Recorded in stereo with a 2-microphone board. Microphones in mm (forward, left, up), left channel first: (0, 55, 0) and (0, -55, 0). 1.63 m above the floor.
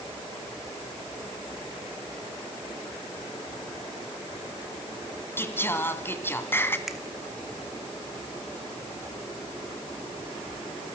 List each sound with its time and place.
5.4 s singing: 20° left (ahead or behind), 2.5 m
6.9 s a finger snap: 5° right (ahead or behind), 2.5 m